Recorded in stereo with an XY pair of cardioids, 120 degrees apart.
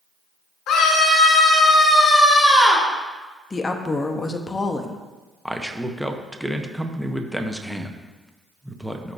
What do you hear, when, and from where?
0.7 s a scream: 65° left, 2.5 m; by 2.9 s 20° left, 2 m
3.5 s a woman speaking: 20° left, 0.8 m
5.5 s a man speaking: straight ahead, 0.8 m